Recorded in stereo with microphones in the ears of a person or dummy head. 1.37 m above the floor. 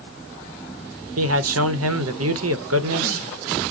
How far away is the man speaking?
About 0.5 m.